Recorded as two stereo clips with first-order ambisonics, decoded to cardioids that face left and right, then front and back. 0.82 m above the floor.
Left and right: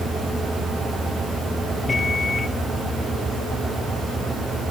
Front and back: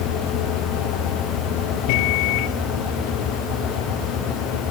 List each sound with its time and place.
1.9 s a microwave: 15° left